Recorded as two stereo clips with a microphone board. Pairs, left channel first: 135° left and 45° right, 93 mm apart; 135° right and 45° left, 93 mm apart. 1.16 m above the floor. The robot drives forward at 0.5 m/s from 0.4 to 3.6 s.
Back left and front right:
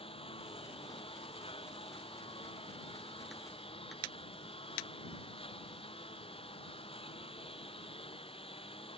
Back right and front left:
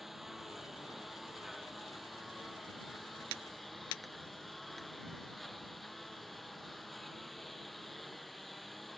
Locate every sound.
0.0 s a lawn mower: 135° left